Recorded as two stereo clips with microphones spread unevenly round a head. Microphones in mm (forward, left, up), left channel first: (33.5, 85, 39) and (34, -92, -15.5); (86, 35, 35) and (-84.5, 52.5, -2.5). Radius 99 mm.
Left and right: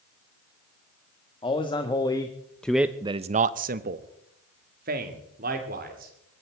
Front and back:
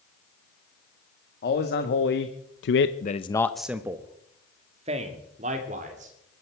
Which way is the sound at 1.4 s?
25° left.